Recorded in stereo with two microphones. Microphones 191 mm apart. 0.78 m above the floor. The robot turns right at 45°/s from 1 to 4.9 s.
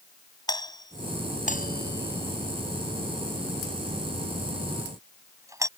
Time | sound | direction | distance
0.5 | a doorbell | 20° left (ahead or behind) | ?